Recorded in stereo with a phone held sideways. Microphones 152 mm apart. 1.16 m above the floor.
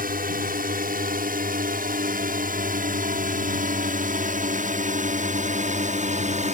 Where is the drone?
70° right (ahead or behind); by 6.5 s 50° right (ahead or behind).